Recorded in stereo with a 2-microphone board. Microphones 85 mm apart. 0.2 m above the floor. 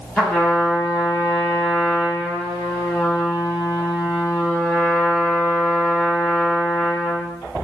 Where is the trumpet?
5° left (ahead or behind), 0.9 m.